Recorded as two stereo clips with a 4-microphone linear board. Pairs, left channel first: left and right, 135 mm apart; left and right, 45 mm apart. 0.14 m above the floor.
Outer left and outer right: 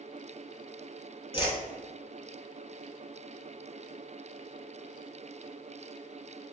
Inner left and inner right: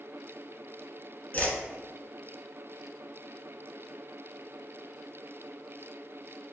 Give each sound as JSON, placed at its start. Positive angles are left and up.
{"t": 1.3, "sound": "a whoosh", "side_deg": 40, "distance_m": 0.6}